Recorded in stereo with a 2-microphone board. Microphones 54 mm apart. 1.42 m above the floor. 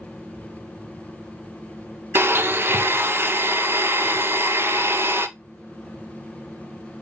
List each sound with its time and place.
2.1 s a blender: 45° right (ahead or behind), 0.6 m